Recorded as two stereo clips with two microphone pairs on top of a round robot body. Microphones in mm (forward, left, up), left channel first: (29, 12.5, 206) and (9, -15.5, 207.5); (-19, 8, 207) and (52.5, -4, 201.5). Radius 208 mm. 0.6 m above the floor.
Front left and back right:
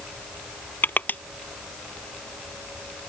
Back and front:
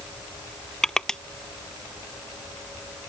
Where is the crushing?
85° left.